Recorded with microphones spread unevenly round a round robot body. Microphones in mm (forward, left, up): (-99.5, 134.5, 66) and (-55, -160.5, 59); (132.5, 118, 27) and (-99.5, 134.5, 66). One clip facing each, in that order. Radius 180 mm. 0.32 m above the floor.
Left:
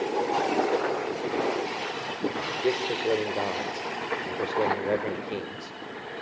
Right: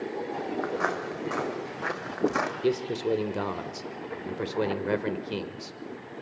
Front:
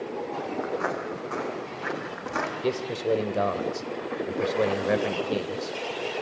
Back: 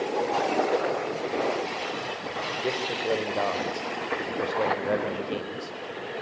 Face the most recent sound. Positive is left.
turn(degrees=-30)